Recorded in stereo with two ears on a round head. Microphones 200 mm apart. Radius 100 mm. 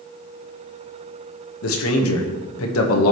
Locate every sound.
1.6 s a man speaking: 65° left (ahead or behind), 1.4 m